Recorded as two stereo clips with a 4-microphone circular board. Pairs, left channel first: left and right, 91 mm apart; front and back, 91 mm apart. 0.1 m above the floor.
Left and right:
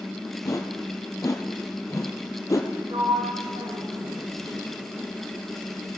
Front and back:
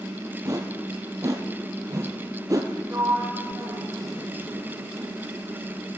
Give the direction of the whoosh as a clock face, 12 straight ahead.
7 o'clock.